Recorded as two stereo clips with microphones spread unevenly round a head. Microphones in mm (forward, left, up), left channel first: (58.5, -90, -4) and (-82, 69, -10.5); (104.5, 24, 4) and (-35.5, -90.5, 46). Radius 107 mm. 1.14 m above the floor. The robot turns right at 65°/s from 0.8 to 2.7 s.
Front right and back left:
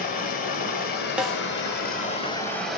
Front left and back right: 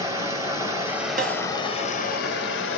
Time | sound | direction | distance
0.0 | running water | 85° right | 1.3 m
1.2 | a snare drum | 145° right | 0.7 m